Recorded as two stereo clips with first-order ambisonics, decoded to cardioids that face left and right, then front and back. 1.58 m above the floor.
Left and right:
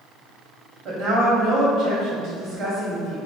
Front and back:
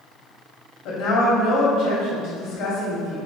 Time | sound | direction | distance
0.8 | a woman speaking | 40° right | 1.2 m